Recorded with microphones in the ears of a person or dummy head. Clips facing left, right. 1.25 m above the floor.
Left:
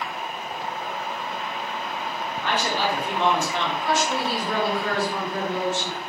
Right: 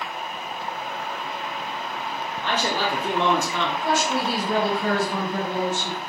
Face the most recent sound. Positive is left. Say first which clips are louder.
# right 1 dB
turn(degrees=-35)  # may be behind; listen again after turning